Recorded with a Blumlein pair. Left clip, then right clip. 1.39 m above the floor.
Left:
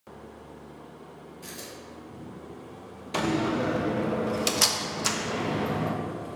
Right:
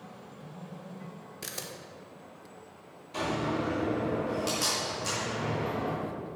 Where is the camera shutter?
60° right, 1.4 m.